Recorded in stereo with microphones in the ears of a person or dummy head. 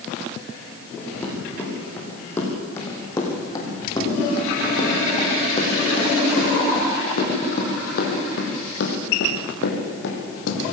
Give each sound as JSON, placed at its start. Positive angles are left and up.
{"t": 1.0, "sound": "running footsteps", "side_deg": 10, "distance_m": 6.0}